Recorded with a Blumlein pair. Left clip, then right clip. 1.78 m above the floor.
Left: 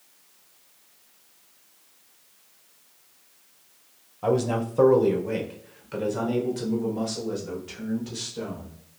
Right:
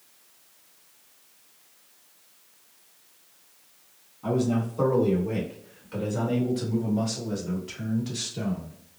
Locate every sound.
4.2 s a man speaking: 45° left, 1.6 m; by 8.7 s 10° right, 3 m